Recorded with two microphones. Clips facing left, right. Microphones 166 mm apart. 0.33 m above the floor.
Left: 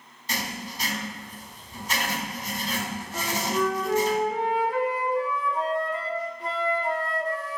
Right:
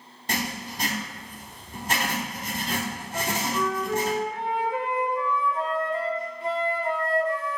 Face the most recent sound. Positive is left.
turn(degrees=70)  # may be behind; listen again after turning